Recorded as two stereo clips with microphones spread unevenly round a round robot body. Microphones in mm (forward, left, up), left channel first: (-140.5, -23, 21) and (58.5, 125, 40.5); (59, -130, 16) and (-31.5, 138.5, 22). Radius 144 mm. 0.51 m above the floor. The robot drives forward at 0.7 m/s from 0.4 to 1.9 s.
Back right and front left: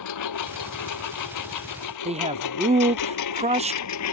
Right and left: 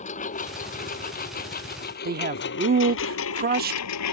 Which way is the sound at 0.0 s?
140° right.